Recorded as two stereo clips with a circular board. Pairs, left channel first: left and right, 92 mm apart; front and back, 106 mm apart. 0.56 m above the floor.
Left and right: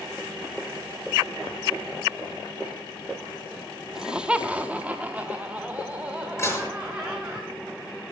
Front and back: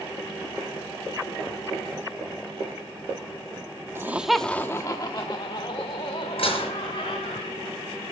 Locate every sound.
4.0 s laughter: 165° right, 0.7 m; by 7.4 s 15° right, 2.5 m
6.4 s dishes clattering: 30° left, 6 m